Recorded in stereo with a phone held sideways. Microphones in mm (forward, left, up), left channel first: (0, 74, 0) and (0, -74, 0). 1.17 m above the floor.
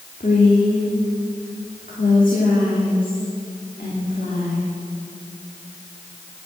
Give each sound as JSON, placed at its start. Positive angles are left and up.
{"t": 0.2, "sound": "a woman speaking", "side_deg": 65, "distance_m": 2.5}